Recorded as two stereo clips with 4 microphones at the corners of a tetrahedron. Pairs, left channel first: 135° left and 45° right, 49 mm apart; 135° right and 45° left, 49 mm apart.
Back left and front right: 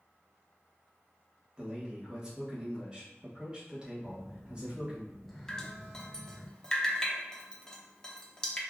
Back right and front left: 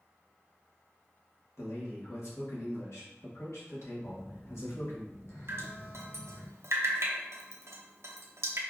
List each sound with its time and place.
1.6 s a man speaking: 115° right, 1.2 m
4.0 s a phone buzzing: 140° right, 0.9 m
5.5 s dripping: 60° left, 0.6 m